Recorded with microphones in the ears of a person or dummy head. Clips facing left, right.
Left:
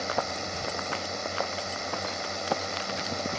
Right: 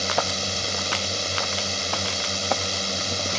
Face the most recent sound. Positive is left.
turn(degrees=-50)  # may be behind; listen again after turning